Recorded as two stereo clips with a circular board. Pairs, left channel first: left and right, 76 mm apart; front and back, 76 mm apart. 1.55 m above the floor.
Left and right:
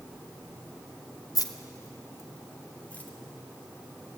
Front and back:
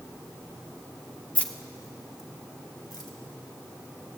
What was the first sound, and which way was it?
Keys jangling, 70° left.